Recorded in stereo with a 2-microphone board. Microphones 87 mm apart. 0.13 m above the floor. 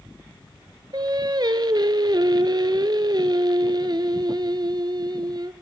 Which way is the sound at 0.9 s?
55° right (ahead or behind).